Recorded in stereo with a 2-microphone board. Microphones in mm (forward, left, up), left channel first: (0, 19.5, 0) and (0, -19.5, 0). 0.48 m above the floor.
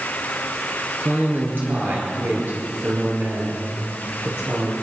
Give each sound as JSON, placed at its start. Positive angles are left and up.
{"t": 1.0, "sound": "a man speaking", "side_deg": -55, "distance_m": 7.5}